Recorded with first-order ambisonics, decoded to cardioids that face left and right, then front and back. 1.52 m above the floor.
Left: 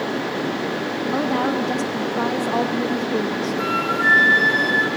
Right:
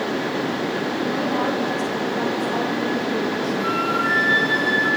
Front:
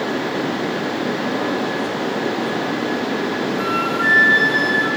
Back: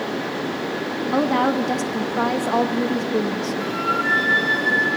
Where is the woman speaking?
160° left, 2.5 m.